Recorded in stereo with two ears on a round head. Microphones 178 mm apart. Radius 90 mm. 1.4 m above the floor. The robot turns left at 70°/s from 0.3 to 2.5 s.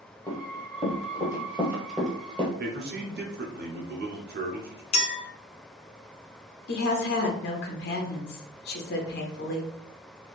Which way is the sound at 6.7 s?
50° left (ahead or behind).